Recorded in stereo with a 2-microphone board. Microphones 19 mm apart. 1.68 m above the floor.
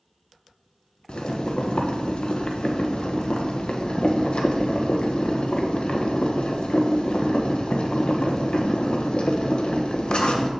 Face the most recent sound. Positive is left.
turn(degrees=60)  # may be behind; listen again after turning